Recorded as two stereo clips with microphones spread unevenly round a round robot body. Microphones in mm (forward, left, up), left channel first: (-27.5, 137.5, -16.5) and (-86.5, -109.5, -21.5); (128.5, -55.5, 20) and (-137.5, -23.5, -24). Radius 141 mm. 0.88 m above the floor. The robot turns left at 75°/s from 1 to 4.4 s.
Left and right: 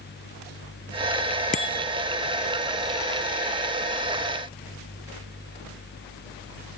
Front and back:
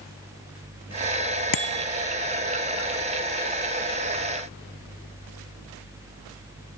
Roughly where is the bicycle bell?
Ahead.